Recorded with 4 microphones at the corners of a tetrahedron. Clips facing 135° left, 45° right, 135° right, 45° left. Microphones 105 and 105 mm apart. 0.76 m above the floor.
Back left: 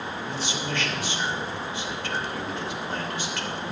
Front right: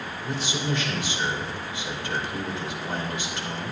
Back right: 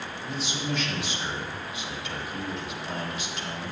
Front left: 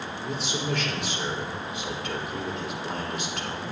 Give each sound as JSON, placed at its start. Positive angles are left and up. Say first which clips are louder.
{"t": 0.2, "sound": "a man speaking", "louder": "front right 5 dB, front left 2 dB", "azimuth_deg": 30, "distance_m": 3.0}